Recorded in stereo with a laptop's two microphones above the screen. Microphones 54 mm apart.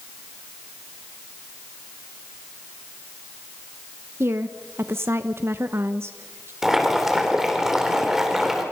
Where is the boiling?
5° right (ahead or behind), 3 m.